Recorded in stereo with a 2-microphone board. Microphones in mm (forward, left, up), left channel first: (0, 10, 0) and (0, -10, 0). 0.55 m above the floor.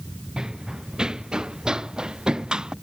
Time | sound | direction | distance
0.4 | running footsteps | 40° right (ahead or behind) | ?